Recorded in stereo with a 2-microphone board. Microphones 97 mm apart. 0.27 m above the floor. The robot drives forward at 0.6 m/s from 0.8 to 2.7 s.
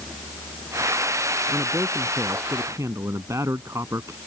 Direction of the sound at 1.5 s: 25° right (ahead or behind).